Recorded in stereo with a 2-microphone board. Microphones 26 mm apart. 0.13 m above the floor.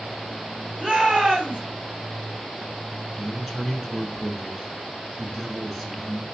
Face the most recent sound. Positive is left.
turn(degrees=-5)  # may be behind; listen again after turning